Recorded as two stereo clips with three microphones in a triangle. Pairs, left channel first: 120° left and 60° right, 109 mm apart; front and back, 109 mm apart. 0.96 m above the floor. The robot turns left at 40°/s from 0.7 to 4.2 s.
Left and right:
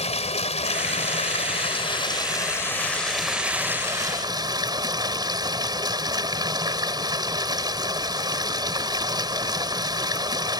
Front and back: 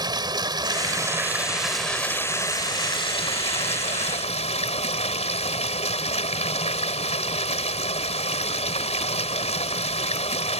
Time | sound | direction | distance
0.0 | running water | 130° left | ?